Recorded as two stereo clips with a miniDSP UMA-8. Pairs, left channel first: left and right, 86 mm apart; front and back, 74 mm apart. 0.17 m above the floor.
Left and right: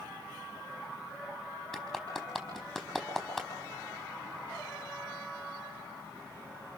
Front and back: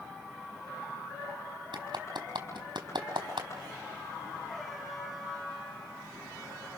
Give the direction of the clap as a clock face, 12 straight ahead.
6 o'clock.